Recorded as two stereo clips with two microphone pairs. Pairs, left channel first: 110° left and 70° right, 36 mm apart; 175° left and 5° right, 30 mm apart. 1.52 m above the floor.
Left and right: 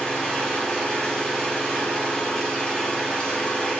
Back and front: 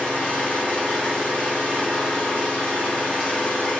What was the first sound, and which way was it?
An engine running, 175° right.